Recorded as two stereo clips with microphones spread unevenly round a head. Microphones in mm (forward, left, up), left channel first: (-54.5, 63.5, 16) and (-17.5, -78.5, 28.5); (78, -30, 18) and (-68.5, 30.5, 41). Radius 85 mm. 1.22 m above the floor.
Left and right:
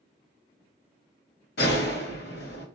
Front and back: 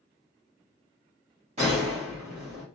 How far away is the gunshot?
About 3 m.